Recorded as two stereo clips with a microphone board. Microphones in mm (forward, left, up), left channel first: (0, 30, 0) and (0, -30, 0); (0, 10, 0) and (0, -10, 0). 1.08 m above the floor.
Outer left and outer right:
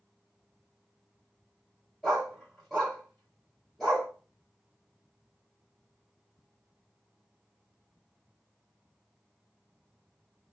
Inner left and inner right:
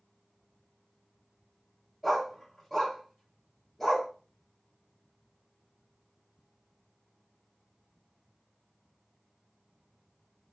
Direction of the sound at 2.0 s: Centre (ahead or behind).